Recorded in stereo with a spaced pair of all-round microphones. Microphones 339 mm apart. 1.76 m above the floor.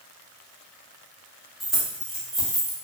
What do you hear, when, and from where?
1.6 s keys jangling: centre (ahead or behind), 1.0 m